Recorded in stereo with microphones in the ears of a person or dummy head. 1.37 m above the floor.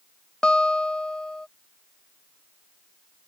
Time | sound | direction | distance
0.4 | a guitar | 10° left (ahead or behind) | ?